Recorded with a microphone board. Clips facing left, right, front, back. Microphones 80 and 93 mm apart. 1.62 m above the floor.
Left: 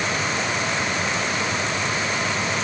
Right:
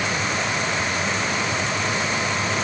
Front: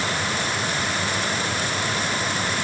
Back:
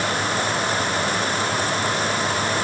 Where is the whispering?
I don't hear whispering.